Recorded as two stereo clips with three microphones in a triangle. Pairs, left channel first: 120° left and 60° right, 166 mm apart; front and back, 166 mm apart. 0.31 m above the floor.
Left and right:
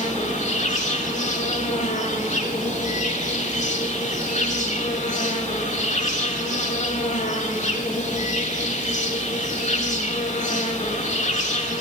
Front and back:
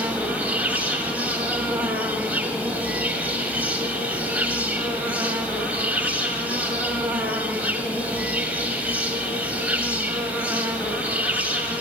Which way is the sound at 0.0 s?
100° left.